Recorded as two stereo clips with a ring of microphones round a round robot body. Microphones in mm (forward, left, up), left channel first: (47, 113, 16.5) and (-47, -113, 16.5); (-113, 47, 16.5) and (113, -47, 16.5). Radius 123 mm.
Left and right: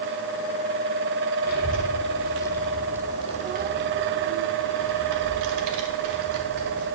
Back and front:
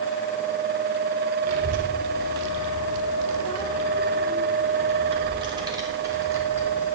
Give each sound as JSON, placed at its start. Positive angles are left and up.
{"t": 1.4, "sound": "a child speaking", "azimuth_deg": 15, "distance_m": 1.3}